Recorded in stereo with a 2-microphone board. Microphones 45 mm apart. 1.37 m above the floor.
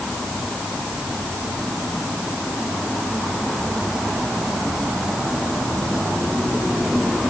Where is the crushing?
I don't hear crushing.